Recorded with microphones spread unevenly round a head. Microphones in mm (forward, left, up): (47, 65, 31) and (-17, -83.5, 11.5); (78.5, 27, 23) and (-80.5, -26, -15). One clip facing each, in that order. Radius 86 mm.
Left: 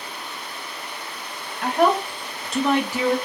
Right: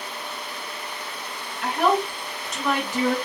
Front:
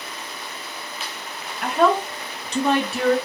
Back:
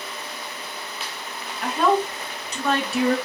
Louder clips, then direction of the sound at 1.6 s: Left 2 dB, front 1 dB; 30° left.